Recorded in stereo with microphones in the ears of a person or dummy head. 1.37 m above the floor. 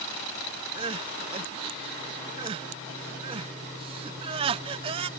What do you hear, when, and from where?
0.8 s crying: 25° right (ahead or behind)